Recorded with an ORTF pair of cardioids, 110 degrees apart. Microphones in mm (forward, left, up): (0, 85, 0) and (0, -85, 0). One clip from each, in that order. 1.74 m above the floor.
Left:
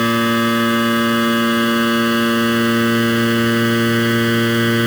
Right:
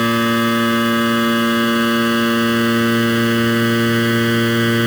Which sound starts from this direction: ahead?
A machine running, at 0.0 s.